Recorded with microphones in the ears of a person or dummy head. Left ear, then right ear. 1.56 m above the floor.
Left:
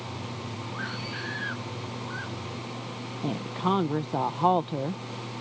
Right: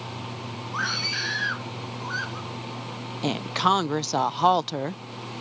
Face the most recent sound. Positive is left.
turn(degrees=-65)  # may be behind; listen again after turning